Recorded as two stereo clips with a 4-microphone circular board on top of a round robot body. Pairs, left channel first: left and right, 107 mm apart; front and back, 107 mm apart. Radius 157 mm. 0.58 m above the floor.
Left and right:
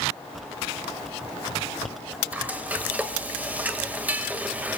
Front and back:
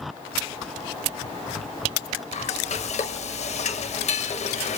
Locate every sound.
2.3 s frying: 15° right, 1.9 m